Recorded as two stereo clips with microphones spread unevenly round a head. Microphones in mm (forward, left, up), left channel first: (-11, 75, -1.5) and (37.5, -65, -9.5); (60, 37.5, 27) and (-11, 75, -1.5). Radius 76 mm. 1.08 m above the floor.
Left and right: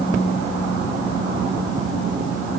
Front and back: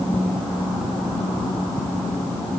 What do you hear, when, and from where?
Only background noise.